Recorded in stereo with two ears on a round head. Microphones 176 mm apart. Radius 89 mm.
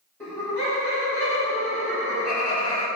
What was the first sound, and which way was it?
Laughter, 10° left (ahead or behind).